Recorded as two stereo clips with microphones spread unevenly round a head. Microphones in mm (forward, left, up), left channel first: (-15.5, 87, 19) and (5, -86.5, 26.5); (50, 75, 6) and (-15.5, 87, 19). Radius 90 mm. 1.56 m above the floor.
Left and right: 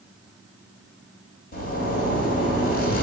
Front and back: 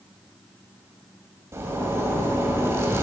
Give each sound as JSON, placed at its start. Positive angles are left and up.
{"t": 1.5, "sound": "a zipper", "azimuth_deg": 130, "distance_m": 3.0}